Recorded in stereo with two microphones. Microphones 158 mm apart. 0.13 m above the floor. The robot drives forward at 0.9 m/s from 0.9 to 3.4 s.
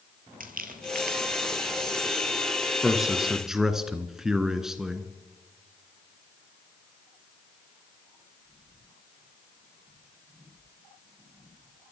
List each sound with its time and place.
0.4 s crumpling: 65° right (ahead or behind), 1.8 m; by 2.7 s 45° right (ahead or behind), 2.5 m
2.8 s a man speaking: centre (ahead or behind), 1.7 m; by 5.1 s 5° right (ahead or behind), 1.4 m